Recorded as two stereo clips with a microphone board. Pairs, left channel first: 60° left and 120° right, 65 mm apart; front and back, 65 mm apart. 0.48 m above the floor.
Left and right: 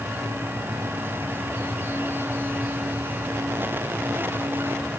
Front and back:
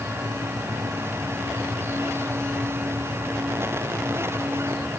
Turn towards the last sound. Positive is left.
No sound to turn to.